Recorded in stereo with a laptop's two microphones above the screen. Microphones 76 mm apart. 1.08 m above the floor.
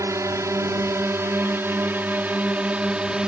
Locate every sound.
0.0 s a drone: 45° right (ahead or behind); by 3.3 s 10° right (ahead or behind)